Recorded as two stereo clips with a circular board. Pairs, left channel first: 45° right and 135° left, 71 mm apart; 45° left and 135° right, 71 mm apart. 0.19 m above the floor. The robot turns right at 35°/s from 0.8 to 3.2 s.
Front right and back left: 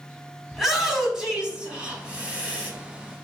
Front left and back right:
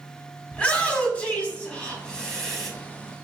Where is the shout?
60° left, 1.2 m; by 2.7 s 125° left, 1.2 m.